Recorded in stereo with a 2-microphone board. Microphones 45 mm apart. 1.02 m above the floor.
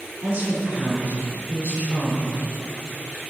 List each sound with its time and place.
0.2 s a woman speaking: 35° right (ahead or behind), 3.5 m